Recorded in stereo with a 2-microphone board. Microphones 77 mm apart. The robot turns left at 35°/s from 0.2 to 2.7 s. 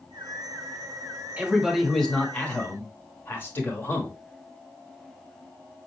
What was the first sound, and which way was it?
A man speaking, 165° right.